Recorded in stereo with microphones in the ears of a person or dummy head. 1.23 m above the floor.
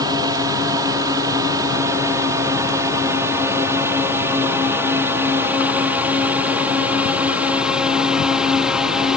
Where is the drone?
20° right (ahead or behind); by 9.2 s 5° right (ahead or behind).